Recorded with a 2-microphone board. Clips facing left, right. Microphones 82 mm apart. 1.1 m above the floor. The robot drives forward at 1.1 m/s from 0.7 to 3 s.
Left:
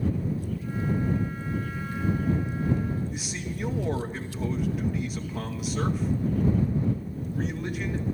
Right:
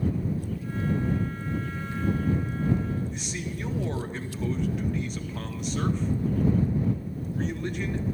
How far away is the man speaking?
About 1.9 m.